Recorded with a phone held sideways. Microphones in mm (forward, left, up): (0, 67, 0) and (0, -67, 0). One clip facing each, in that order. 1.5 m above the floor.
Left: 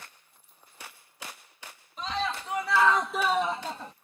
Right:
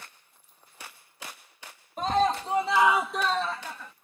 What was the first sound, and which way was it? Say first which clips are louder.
A scream: right 8 dB; 50° right (ahead or behind).